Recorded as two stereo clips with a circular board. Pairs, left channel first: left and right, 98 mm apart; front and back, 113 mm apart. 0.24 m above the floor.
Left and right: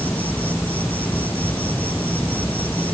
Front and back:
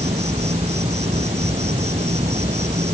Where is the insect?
165° left.